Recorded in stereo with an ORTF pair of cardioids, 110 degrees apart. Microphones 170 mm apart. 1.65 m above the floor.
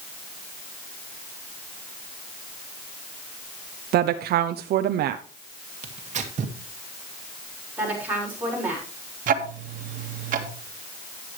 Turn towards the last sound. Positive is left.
turn(degrees=-50)